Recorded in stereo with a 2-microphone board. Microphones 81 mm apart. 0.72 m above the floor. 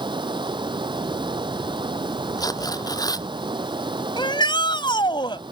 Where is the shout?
80° left.